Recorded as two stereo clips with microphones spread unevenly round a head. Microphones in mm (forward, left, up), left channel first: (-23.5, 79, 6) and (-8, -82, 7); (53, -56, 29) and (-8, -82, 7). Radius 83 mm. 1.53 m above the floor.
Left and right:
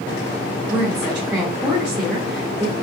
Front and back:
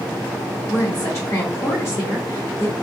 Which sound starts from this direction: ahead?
A woman speaking, at 0.7 s.